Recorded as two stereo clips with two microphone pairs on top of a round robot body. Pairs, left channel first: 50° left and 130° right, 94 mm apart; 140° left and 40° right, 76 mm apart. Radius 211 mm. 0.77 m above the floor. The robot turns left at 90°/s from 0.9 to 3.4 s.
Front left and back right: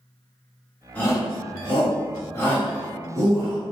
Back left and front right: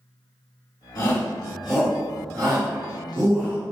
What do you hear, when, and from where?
0.9 s a shout: 120° left, 1.9 m; by 3.6 s 100° right, 1.9 m